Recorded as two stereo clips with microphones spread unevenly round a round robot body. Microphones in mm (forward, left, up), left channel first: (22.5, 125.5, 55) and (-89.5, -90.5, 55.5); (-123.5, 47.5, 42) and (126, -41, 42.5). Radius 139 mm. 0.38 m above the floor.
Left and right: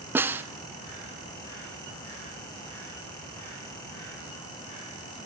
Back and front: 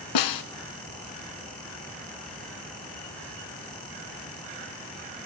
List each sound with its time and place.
0.1 s a snare drum: 160° left, 1.0 m